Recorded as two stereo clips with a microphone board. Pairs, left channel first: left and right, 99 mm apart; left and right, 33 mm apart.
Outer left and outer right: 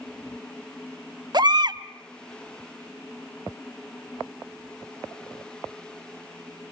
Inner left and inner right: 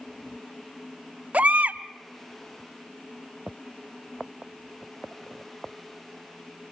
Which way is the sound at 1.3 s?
45° right (ahead or behind).